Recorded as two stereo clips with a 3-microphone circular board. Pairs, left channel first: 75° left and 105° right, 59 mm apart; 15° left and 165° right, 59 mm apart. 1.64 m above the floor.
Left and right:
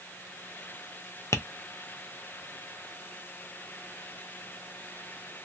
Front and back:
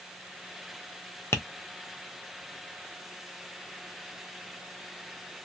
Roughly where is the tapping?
Ahead left.